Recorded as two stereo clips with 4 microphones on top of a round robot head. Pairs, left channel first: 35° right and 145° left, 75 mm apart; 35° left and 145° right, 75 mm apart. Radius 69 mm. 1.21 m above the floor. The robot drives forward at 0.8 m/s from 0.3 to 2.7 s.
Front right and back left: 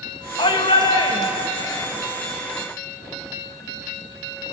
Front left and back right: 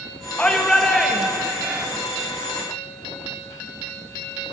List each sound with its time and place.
0.4 s a shout: 45° right, 2 m; by 1.9 s 80° right, 1.5 m